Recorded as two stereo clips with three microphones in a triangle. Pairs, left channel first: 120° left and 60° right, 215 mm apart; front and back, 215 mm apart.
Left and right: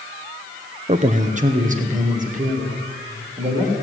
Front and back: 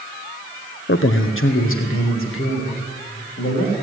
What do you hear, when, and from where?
0.9 s a man speaking: 10° right, 0.5 m